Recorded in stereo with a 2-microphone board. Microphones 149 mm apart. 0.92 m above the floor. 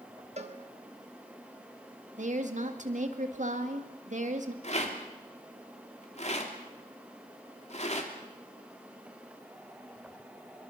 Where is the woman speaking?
55° right (ahead or behind), 2.0 m.